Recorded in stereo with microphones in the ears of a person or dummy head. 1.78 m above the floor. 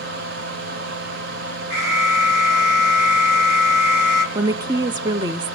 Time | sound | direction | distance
0.0 | a fan | 55° right (ahead or behind) | 1.4 m
1.7 | an alarm | 80° right | 5 m
4.3 | a woman speaking | 25° right (ahead or behind) | 0.7 m